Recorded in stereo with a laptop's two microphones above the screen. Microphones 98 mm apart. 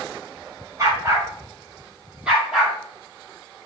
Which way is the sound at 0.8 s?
35° right (ahead or behind).